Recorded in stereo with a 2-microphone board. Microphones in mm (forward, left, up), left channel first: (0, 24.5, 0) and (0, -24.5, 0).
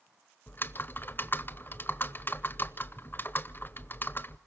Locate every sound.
0.5 s typing on a keyboard: 45° left (ahead or behind), 0.7 m